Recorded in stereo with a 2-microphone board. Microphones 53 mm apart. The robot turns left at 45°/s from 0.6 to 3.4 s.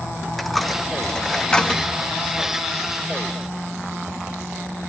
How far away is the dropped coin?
About 0.8 m.